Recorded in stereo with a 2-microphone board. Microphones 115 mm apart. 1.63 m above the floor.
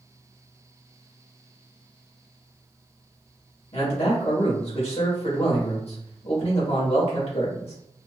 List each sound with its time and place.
3.7 s a man speaking: 65° left (ahead or behind), 2 m